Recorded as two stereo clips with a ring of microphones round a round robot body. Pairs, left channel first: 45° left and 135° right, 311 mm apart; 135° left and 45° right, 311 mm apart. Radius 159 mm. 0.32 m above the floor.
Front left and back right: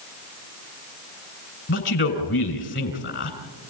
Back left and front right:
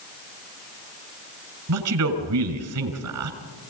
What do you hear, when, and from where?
1.7 s a man speaking: 10° right, 3.5 m